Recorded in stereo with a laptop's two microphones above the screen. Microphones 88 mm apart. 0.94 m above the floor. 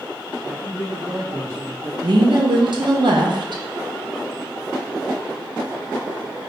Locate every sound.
0.4 s a man speaking: 40° right (ahead or behind), 1.0 m
2.0 s a woman speaking: 60° right (ahead or behind), 0.7 m